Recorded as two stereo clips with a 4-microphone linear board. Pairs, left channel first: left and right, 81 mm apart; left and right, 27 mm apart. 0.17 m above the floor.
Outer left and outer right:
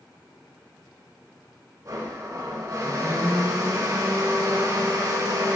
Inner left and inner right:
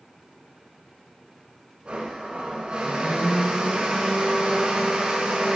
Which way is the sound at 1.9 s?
45° right (ahead or behind).